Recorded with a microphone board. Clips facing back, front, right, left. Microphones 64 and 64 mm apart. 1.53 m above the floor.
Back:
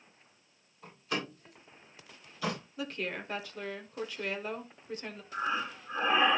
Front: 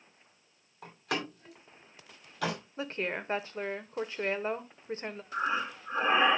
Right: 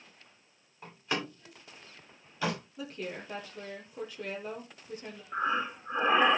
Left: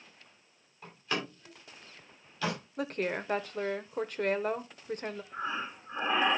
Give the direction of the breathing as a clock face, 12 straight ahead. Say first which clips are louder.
Front 2 dB, right 8 dB; 2 o'clock.